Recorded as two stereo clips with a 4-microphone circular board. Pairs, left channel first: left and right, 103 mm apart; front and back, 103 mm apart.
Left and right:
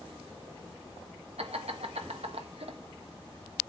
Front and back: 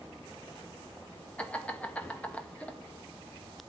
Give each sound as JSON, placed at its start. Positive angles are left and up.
{"t": 1.4, "sound": "laughter", "azimuth_deg": -80, "distance_m": 1.7}